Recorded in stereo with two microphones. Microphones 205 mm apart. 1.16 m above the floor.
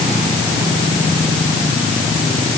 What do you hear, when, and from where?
Only background noise.